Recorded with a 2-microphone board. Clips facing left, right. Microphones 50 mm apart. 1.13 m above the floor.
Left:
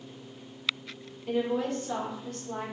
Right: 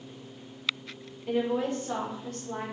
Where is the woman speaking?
10° right (ahead or behind), 0.9 m; by 2.6 s 40° right (ahead or behind), 1.4 m.